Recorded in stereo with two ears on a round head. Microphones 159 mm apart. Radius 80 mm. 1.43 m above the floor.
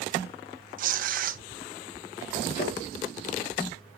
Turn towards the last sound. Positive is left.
turn(degrees=40)  # may be behind; listen again after turning